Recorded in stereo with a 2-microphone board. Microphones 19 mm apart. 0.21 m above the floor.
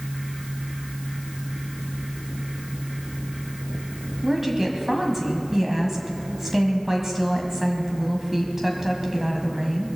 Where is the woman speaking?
20° right (ahead or behind), 1.5 m.